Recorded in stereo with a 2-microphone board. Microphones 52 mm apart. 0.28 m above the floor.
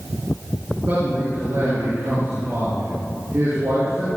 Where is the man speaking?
55° right (ahead or behind), 3 m; by 4.1 s 80° right, 6.5 m.